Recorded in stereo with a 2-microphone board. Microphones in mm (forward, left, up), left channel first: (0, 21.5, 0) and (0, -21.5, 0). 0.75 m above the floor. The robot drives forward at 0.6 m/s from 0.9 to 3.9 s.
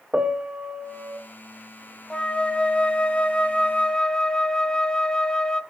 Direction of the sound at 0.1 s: 25° right (ahead or behind).